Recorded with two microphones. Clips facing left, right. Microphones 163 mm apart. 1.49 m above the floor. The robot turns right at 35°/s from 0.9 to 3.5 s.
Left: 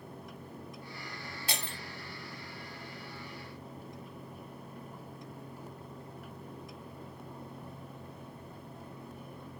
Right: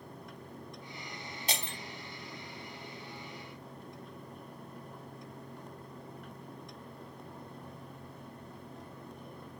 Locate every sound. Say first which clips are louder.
1.5 s breaking glass: right 2 dB; 20° right (ahead or behind), 2.5 m; by 1.8 s 30° right (ahead or behind), 2.5 m